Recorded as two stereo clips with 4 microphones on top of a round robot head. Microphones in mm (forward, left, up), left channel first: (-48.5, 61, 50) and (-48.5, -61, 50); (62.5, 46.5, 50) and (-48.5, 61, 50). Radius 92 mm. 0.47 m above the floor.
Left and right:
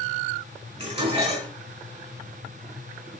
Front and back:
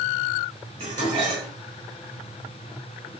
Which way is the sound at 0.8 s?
130° right.